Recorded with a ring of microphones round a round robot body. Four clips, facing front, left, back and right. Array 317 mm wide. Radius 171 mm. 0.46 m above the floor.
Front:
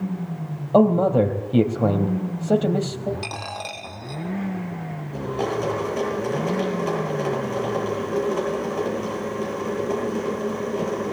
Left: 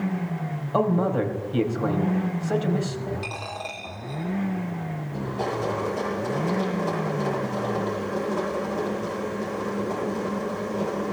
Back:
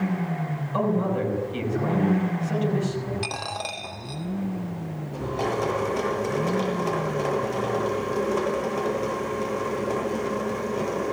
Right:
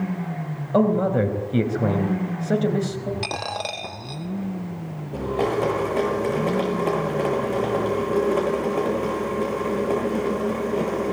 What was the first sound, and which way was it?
A man speaking, 25° right.